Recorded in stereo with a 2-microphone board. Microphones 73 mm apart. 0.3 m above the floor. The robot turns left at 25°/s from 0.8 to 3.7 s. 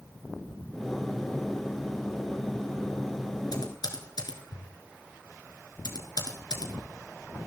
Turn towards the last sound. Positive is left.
turn(degrees=75)  # may be behind; listen again after turning